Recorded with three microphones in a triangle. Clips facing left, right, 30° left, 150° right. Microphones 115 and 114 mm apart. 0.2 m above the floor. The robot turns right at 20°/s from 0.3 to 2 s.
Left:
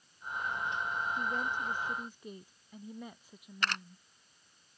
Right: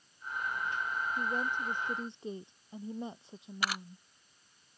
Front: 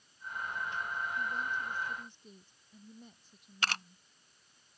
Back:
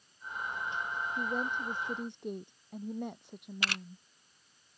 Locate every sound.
1.2 s a woman speaking: 170° right; by 4.0 s 150° right
3.6 s a camera shutter: 10° right